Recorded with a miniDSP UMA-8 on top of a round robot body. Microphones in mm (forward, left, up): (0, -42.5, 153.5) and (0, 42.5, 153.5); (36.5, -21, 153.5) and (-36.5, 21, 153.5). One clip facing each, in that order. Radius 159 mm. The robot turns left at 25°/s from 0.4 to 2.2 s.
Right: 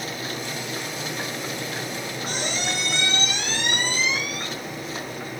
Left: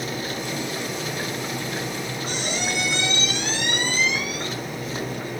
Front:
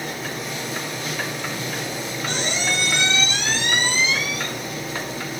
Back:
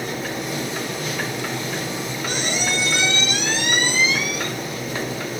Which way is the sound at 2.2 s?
130° right.